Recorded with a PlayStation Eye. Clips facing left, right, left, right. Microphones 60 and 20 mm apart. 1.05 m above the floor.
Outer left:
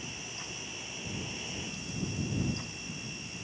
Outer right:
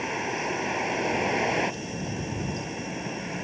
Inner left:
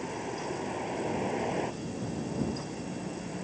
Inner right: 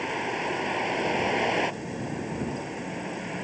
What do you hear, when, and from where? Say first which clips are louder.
0.0 s a vehicle: outer right 15 dB, inner right 7 dB; 70° right (ahead or behind)